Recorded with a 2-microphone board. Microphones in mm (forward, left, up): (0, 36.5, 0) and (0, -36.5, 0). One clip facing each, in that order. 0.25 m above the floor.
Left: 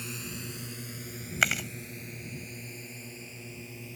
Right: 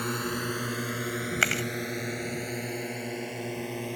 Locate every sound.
0.0 s a drone: 60° right (ahead or behind); by 4.0 s 65° right (ahead or behind)
1.4 s chewing: centre (ahead or behind)